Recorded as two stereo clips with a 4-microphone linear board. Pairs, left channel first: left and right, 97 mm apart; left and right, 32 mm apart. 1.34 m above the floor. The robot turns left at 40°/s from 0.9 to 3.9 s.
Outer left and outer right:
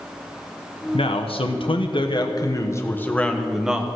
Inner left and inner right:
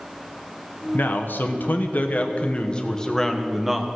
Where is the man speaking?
105° left, 1.2 m; by 3.9 s 15° right, 1.2 m.